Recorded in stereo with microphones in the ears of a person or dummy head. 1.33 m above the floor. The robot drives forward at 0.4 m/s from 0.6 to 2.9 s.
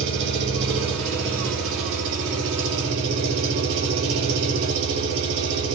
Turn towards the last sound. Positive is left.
turn(degrees=-80)